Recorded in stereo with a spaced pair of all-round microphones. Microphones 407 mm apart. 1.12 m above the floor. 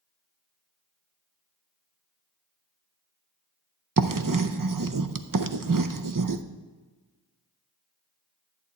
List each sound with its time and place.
4.0 s writing: 50° right (ahead or behind), 0.6 m